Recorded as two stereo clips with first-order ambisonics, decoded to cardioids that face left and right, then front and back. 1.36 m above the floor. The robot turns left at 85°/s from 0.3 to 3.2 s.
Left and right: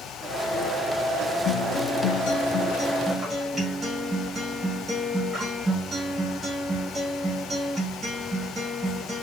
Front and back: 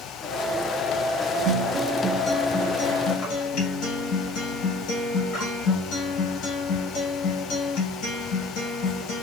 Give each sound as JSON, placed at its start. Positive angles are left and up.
{"t": 1.4, "sound": "a guitar", "azimuth_deg": 135, "distance_m": 1.0}